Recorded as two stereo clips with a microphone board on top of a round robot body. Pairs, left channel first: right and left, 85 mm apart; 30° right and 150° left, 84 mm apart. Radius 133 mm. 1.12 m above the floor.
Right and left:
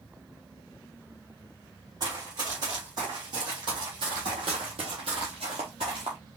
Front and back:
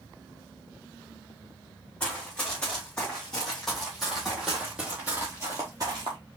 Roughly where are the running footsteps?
Ahead left.